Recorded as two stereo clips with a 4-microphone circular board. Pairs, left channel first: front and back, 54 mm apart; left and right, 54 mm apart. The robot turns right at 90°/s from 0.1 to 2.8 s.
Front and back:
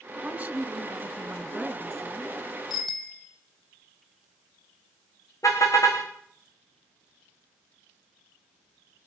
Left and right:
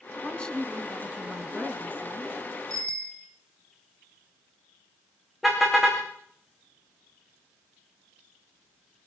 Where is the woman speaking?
125° left, 1.8 m; by 2.3 s 45° right, 1.8 m.